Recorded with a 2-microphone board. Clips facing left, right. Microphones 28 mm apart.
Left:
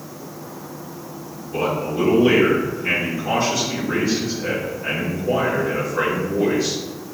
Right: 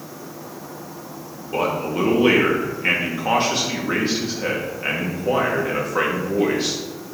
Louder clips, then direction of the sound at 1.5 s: Even; 55° right (ahead or behind).